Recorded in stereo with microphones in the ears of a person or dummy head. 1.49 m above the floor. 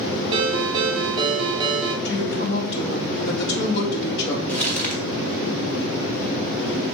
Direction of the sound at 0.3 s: 30° right (ahead or behind).